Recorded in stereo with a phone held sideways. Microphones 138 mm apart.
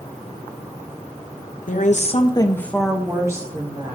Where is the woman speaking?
70° left (ahead or behind), 1.0 m; by 4.0 s 30° right (ahead or behind), 1.6 m.